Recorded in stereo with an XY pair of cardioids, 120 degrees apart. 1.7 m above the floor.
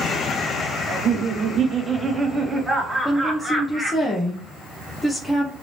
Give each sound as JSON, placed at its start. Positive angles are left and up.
{"t": 0.9, "sound": "laughter", "azimuth_deg": -60, "distance_m": 0.8}
{"t": 3.0, "sound": "a woman speaking", "azimuth_deg": 15, "distance_m": 0.8}